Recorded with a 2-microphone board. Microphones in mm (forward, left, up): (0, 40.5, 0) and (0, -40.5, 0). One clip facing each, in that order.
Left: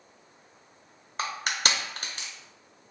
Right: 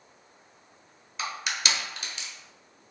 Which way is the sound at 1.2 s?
45° left (ahead or behind).